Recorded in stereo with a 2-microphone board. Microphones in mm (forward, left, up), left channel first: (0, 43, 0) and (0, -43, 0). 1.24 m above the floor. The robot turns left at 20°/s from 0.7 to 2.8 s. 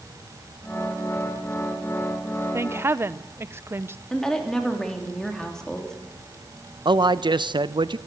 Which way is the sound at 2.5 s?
30° right (ahead or behind).